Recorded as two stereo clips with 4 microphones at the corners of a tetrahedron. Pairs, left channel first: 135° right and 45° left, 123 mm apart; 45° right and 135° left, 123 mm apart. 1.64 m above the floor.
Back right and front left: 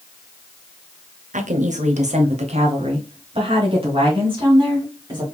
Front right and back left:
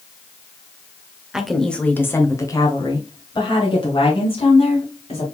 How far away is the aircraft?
No aircraft in this recording.